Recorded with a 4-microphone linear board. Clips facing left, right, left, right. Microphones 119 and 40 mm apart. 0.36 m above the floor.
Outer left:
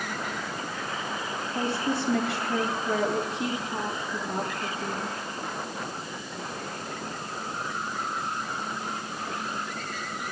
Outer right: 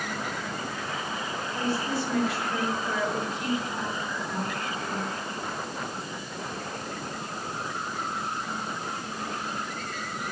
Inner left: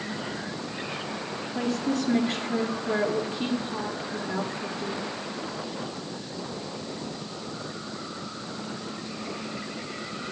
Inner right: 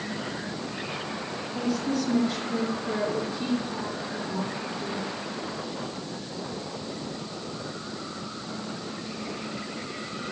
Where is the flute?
No flute in this recording.